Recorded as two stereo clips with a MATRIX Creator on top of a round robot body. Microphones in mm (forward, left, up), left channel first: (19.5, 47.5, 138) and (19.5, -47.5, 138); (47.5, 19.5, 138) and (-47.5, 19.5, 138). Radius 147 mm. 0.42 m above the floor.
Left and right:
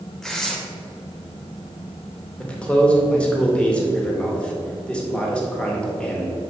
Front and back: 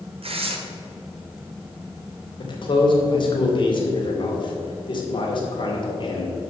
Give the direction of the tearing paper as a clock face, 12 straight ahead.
6 o'clock.